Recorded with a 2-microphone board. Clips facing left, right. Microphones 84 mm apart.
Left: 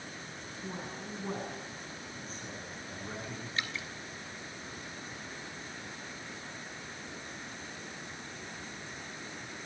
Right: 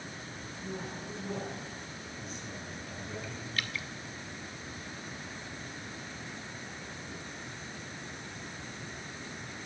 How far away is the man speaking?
About 7.5 m.